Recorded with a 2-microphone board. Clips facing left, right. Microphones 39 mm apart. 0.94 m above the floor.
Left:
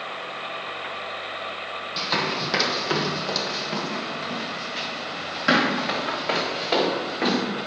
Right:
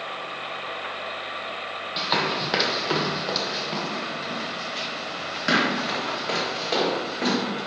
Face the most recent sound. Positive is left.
turn(degrees=15)  # may be behind; listen again after turning